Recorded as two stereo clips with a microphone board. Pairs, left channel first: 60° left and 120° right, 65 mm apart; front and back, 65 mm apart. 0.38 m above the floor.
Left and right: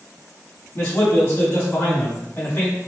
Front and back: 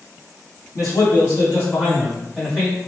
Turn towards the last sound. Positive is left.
turn(degrees=105)